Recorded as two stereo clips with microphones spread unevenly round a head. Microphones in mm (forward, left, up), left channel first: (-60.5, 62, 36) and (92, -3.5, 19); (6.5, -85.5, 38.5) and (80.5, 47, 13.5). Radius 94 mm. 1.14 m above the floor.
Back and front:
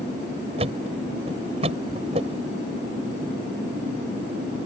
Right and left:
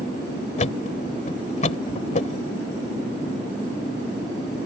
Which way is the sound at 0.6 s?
85° right.